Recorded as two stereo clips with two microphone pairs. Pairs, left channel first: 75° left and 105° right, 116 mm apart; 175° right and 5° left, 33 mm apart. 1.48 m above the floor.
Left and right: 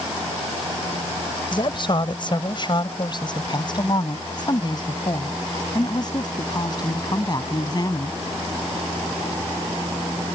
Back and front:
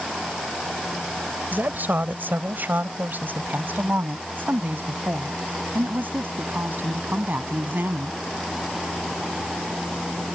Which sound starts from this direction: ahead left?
A woman speaking, at 1.5 s.